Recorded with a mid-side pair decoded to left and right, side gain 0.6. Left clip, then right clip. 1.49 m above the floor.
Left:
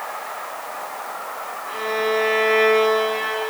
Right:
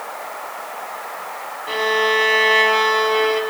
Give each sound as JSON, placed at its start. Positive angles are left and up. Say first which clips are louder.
{"t": 1.7, "sound": "a violin", "louder": "right 5 dB", "azimuth_deg": -65, "distance_m": 1.2}